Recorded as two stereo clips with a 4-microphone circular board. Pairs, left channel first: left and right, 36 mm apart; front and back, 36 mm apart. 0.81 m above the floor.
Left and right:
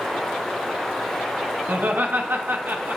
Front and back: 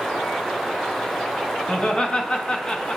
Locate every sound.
1.7 s laughter: 65° right, 0.8 m